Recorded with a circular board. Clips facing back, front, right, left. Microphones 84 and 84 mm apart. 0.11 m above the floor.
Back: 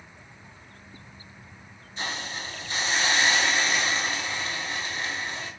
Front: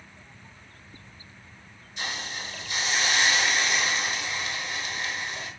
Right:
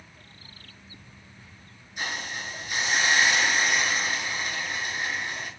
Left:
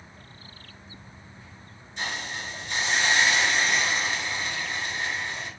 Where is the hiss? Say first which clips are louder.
Back 1 dB, even; 160° right, 0.8 m.